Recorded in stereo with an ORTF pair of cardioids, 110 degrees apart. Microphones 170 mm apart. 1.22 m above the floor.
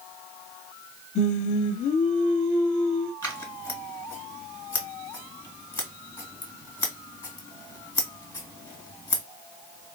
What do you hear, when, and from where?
1.1 s singing: 50° left, 1.5 m
3.2 s scissors: 20° left, 1.8 m